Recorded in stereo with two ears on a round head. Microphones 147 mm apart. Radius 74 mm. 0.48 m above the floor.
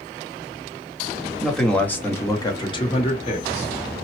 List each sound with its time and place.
1.4 s a man speaking: centre (ahead or behind), 0.9 m; by 4.0 s 45° left (ahead or behind), 1.3 m